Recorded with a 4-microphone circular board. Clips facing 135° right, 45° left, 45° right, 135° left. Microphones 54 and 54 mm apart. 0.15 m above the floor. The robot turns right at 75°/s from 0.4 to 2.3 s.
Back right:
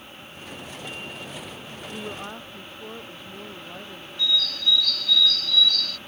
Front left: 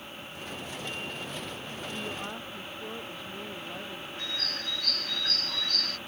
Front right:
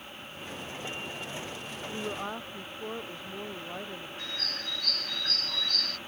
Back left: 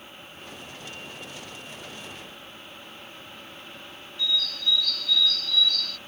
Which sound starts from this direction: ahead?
A bird, at 4.2 s.